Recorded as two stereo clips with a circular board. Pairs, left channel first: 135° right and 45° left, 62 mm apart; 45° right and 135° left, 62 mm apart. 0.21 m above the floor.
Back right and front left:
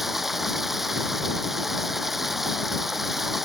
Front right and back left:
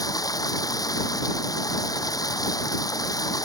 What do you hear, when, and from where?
0.0 s running water: 40° right